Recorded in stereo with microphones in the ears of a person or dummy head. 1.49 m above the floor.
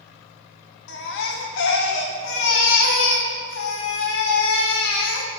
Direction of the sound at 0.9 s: 65° left (ahead or behind).